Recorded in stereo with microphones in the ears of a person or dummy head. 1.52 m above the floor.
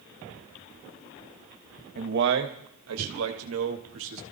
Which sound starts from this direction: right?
A man speaking, at 1.9 s.